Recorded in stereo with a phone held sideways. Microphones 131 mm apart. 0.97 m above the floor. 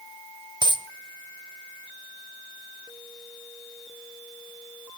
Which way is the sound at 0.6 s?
35° right (ahead or behind).